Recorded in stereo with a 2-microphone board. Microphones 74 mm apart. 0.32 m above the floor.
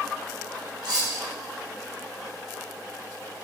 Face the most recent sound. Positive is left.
turn(degrees=-70)  # may be behind; listen again after turning